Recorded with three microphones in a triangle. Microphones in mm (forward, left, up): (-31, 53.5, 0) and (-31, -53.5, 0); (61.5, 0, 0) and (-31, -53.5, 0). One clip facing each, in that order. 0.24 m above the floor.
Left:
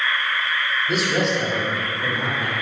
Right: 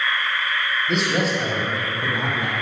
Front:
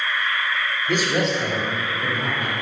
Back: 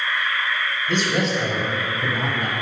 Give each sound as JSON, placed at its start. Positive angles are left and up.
{"t": 0.9, "sound": "a man speaking", "azimuth_deg": 15, "distance_m": 0.9}